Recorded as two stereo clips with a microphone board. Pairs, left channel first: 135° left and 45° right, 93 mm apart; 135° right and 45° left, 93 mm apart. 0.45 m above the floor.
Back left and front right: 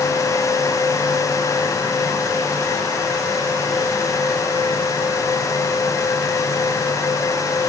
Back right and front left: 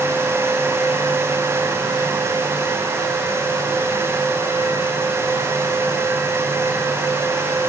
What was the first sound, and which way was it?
Only background noise.